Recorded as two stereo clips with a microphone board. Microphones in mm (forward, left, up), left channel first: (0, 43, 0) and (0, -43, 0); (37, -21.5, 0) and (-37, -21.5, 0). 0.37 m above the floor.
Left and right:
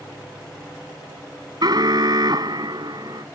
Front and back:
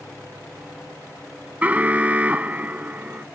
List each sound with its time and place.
1.6 s an alarm: 115° right